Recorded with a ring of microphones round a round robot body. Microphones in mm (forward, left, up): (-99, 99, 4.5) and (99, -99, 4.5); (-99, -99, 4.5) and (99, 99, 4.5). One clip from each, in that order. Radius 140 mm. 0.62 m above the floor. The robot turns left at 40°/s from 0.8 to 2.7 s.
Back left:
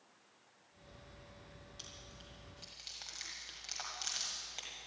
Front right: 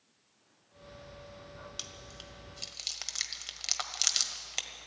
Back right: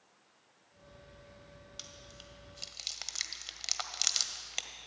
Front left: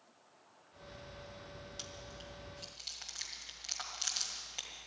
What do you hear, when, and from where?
1.8 s chewing: 50° right, 1.4 m; by 4.9 s 85° right, 1.4 m